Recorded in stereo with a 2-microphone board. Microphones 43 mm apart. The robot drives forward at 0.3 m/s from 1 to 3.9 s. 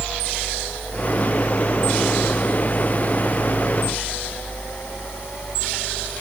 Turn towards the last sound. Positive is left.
No sound to turn to.